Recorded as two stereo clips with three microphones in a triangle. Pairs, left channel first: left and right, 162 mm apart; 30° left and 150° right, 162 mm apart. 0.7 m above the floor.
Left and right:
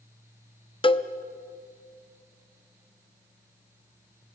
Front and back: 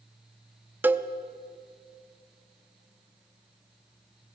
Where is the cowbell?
135° left, 0.6 m.